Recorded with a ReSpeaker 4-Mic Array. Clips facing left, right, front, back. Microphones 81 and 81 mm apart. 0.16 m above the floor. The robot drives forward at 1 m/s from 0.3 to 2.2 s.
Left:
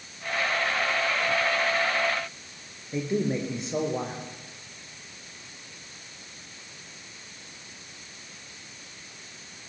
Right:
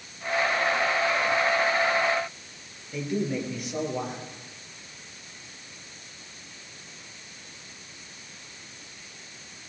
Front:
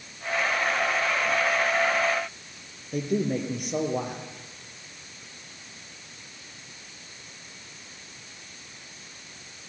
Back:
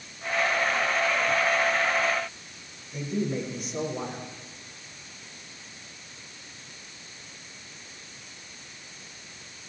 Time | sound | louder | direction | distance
2.9 | a man speaking | left 2 dB, front 3 dB | 25° left | 5 m